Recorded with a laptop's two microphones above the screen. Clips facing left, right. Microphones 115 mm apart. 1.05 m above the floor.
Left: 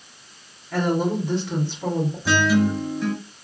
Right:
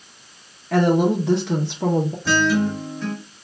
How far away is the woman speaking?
About 0.6 m.